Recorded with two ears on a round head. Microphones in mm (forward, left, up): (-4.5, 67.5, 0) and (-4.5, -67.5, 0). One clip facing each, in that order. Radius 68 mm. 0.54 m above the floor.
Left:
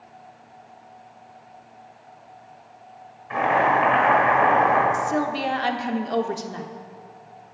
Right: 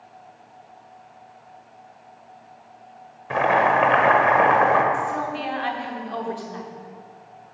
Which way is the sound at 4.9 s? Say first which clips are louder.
Left 2 dB; 50° left (ahead or behind).